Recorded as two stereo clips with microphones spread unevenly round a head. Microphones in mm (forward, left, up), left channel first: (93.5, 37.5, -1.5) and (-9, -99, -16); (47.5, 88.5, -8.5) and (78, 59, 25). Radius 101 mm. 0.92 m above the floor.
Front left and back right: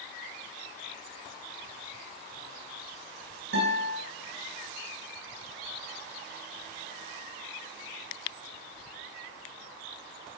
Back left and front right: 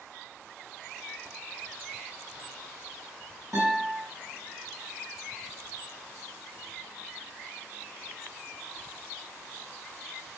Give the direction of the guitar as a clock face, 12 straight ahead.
4 o'clock.